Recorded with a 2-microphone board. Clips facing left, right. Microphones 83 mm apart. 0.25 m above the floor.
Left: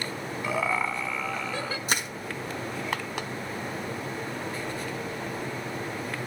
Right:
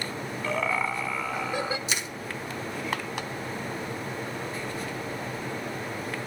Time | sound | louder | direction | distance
0.4 | laughter | even | 10° left (ahead or behind) | 1.7 m
1.9 | crushing | left 3 dB | 50° left (ahead or behind) | 3 m